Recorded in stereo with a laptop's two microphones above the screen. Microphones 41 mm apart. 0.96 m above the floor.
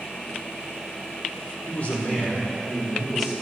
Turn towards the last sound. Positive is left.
turn(degrees=10)  # may be behind; listen again after turning